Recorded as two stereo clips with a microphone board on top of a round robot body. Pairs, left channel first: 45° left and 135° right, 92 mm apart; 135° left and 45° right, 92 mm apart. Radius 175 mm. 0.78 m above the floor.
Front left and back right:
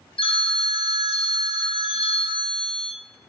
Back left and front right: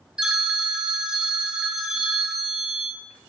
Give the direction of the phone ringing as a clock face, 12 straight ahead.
11 o'clock.